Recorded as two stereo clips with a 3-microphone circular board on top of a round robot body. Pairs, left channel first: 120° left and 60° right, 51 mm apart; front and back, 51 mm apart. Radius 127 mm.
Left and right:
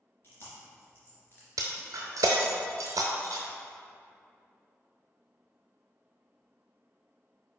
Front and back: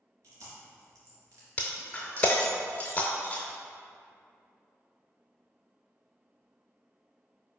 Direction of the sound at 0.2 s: 170° left.